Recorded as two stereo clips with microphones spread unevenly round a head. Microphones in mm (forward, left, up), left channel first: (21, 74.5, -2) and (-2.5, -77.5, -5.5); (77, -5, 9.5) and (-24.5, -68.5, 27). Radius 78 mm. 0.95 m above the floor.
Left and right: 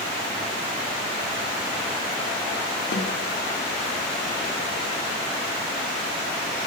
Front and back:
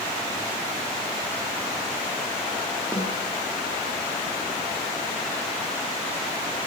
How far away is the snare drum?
About 1.8 m.